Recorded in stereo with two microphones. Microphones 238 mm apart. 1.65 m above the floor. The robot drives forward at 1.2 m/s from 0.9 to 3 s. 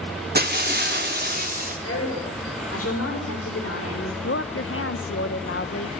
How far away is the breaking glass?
About 1.5 m.